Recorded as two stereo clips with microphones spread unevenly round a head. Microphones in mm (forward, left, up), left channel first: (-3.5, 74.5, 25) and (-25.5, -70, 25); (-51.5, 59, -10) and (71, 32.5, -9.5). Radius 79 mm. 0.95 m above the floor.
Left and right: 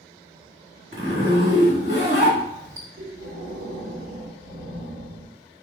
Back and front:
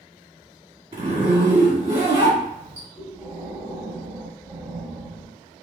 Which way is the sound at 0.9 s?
65° right.